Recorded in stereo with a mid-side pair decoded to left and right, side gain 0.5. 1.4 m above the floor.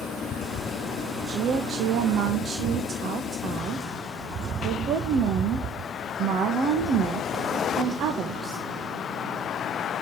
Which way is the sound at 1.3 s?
60° right.